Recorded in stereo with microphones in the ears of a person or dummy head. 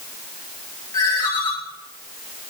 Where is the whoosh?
No whoosh in this recording.